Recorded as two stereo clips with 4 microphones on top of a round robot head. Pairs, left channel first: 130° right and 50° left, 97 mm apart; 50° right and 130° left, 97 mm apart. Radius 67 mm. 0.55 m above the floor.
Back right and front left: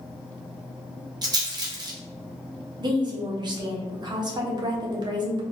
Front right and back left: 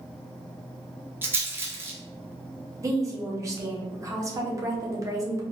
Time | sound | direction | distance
1.2 | a rattle | 70° left | 1.0 m
2.8 | a woman speaking | 80° left | 1.0 m